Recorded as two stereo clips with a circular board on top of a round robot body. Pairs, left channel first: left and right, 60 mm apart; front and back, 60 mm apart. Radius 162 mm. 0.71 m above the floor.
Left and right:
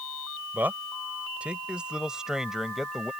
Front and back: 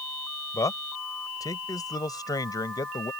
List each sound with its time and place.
0.5 s a man speaking: 30° right; by 3.1 s straight ahead